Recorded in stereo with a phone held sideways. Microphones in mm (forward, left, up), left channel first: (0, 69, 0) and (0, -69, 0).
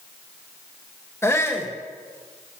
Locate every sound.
1.2 s a shout: 20° left (ahead or behind), 1.2 m